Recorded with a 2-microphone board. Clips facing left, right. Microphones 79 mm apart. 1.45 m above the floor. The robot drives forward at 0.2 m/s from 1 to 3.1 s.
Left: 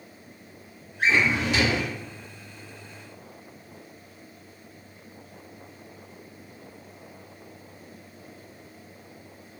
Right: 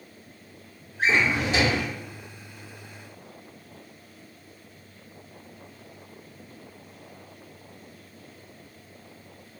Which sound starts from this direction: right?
A drawer, at 1.0 s.